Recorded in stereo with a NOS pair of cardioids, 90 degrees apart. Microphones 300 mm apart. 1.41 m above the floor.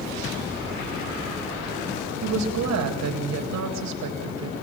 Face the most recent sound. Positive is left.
turn(degrees=-65)